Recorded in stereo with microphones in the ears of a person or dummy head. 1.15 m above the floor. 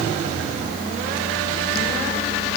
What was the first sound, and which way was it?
Only background noise.